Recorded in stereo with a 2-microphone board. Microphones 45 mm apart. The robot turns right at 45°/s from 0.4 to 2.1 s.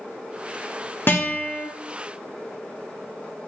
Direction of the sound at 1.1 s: 50° left (ahead or behind).